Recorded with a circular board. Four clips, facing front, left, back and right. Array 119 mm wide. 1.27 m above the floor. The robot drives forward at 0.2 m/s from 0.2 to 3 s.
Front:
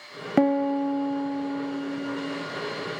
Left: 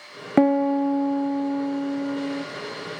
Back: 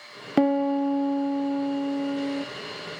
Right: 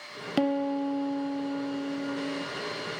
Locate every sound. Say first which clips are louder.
0.4 s a piano: left 8 dB, even; 80° left, 0.6 m; by 2.5 s 145° left, 0.7 m